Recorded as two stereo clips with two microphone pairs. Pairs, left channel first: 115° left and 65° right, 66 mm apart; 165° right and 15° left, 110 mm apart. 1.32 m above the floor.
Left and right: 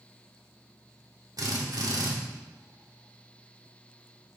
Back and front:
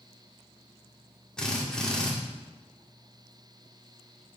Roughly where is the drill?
Right.